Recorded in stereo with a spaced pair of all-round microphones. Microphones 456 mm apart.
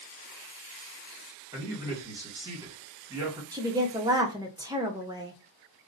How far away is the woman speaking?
About 0.6 m.